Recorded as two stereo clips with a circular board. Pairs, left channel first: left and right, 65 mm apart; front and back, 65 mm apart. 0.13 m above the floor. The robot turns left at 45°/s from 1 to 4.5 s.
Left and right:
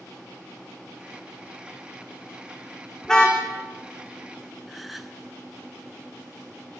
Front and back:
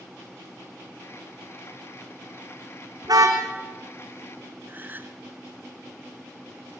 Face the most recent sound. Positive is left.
turn(degrees=-175)